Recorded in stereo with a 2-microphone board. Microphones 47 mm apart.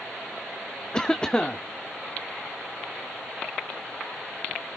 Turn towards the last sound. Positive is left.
turn(degrees=20)  # may be behind; listen again after turning